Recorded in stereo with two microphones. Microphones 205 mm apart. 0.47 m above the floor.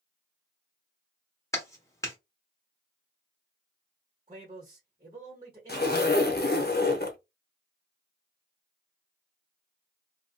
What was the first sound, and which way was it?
A clap, 15° left (ahead or behind).